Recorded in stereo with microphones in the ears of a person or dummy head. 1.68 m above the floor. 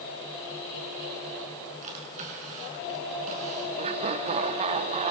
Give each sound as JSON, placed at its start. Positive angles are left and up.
{"t": 1.8, "sound": "a drawer", "side_deg": -40, "distance_m": 6.5}
{"t": 3.8, "sound": "laughter", "side_deg": -35, "distance_m": 0.8}